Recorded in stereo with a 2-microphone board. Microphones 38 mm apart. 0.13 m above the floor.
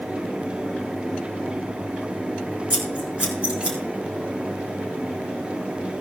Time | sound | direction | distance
2.7 | scissors | 25° right (ahead or behind) | 4.5 m